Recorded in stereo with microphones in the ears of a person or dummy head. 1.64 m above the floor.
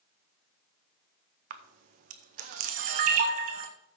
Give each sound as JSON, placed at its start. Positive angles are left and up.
{"t": 1.5, "sound": "a camera shutter", "side_deg": -45, "distance_m": 0.7}